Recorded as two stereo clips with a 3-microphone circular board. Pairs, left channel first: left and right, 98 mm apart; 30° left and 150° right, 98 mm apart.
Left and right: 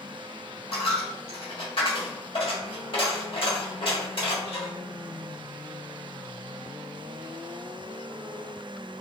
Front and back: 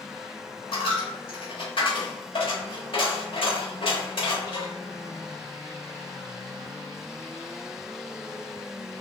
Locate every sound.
0.7 s a dropped coin: 60° left, 1.1 m